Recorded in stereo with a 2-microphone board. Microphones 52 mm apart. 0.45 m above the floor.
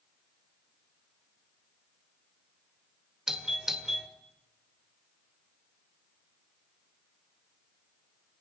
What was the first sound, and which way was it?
A doorbell, 10° right (ahead or behind).